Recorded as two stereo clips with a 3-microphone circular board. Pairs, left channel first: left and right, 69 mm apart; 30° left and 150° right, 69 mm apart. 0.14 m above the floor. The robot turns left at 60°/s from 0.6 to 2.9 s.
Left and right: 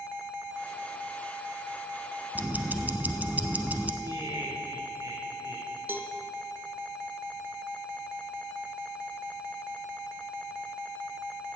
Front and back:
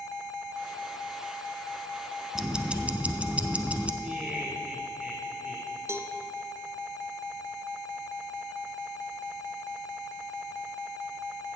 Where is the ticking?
75° right, 0.7 m; by 3.9 s 110° right, 0.7 m.